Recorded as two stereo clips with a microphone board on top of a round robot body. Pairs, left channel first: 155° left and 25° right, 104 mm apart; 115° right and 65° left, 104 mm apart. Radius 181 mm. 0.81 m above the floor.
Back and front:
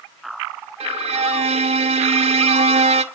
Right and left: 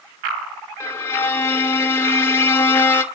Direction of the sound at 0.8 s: 45° right.